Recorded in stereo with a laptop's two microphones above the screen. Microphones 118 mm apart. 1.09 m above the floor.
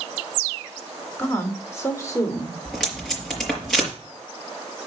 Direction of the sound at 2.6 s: 5° left (ahead or behind).